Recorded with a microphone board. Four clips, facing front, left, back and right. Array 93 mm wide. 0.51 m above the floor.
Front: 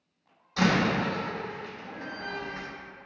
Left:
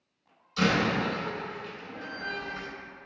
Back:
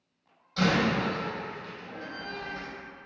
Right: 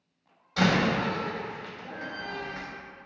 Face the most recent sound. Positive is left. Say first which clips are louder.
# right 1 dB, front 1 dB
turn(degrees=-80)